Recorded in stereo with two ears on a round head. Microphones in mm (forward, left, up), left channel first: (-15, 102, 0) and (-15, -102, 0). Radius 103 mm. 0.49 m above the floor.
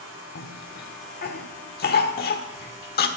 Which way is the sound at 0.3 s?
45° left (ahead or behind).